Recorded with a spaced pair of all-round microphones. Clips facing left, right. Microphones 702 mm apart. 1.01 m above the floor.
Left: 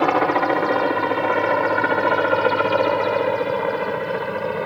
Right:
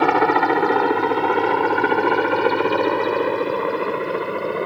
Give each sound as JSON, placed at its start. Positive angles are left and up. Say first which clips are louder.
{"t": 0.0, "sound": "a helicopter", "louder": "right 1 dB", "side_deg": 5}